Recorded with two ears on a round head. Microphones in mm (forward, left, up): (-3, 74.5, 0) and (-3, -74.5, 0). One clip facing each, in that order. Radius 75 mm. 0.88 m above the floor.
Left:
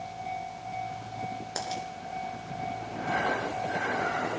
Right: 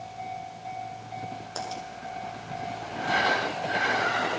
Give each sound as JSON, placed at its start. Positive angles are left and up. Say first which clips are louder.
{"t": 1.6, "sound": "a dropped coin", "louder": "even", "side_deg": 15, "distance_m": 6.5}